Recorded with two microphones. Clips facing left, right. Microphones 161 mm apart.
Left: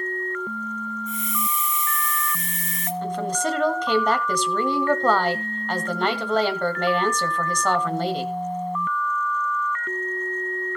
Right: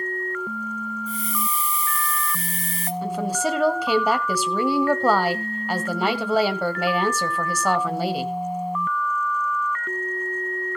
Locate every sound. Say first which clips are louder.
1.1 s a hiss: right 1 dB; 35° right (ahead or behind), 1.4 m
3.0 s a woman speaking: right 1 dB; 10° right (ahead or behind), 1.3 m